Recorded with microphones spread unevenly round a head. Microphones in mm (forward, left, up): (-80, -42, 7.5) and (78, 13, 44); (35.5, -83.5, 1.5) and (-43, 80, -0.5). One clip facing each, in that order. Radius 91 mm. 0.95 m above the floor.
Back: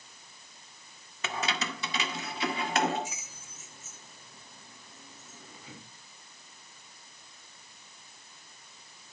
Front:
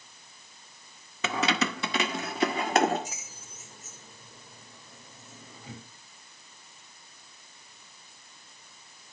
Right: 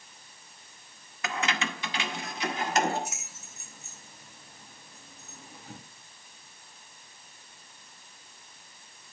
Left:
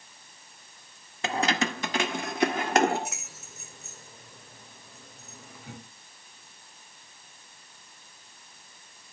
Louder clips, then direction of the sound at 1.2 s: Front 6 dB, left 5 dB; 50° left.